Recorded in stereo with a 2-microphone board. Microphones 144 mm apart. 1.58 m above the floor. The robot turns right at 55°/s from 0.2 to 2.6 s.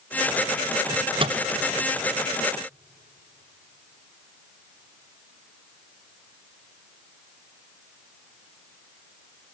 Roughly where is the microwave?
Centre.